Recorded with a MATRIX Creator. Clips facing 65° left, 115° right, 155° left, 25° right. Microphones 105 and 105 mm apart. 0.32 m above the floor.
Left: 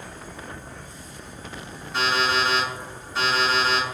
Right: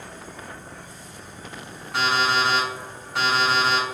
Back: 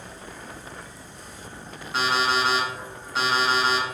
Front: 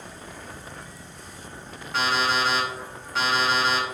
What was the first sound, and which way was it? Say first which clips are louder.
An insect: even, even; 130° right.